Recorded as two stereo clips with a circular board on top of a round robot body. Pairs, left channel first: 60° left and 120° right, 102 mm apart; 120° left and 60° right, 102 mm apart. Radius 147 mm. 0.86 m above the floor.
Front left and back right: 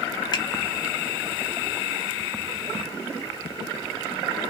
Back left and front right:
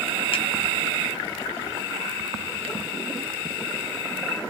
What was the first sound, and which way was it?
A finger snap, 100° left.